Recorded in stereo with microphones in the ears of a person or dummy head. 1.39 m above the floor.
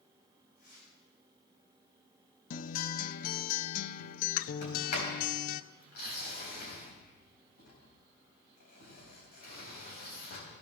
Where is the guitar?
55° left (ahead or behind), 0.5 m.